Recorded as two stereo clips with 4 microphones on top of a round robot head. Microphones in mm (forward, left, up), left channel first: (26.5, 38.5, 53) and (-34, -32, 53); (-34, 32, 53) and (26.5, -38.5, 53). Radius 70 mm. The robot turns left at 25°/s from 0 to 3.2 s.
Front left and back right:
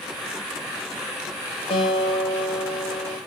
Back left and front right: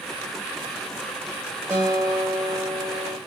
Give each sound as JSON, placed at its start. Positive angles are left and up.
{"t": 1.7, "sound": "a guitar", "azimuth_deg": 20, "distance_m": 0.8}